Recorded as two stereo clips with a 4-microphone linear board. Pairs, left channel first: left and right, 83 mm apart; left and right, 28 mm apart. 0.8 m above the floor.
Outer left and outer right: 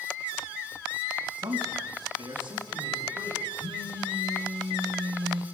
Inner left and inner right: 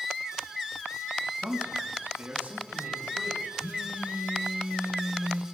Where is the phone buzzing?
80° right, 4.5 m.